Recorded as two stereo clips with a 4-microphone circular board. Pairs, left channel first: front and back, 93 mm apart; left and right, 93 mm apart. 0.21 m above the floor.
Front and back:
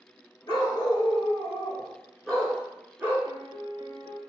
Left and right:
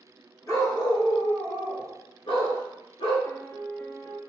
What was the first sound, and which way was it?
A dog barking, 35° left.